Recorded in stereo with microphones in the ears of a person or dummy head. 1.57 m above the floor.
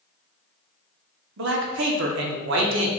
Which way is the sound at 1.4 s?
75° right (ahead or behind).